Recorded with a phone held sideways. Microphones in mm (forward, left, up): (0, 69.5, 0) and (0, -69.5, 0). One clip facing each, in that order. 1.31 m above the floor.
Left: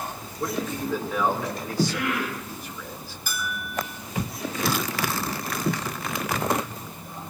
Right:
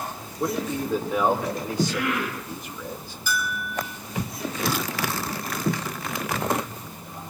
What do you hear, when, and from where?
0.4 s a man speaking: 20° right (ahead or behind), 3.5 m
3.3 s a bell: 50° left (ahead or behind), 7 m